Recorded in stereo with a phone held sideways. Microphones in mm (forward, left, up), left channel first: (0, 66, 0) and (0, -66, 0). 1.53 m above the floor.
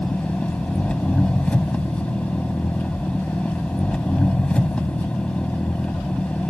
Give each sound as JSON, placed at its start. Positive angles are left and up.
{"t": 0.0, "sound": "an engine running", "side_deg": 10}